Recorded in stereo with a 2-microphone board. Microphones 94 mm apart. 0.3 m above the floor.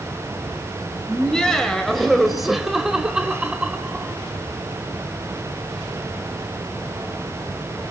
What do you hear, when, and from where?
1.1 s laughter: 10° left (ahead or behind), 1.8 m; by 4.1 s 15° right (ahead or behind), 1.5 m